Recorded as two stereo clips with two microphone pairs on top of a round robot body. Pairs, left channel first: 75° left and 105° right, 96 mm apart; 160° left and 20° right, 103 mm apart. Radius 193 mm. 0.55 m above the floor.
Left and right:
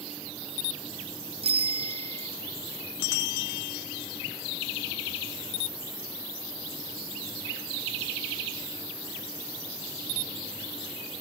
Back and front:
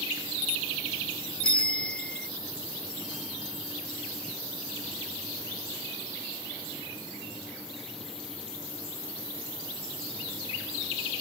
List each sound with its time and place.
1.4 s a bicycle bell: 120° right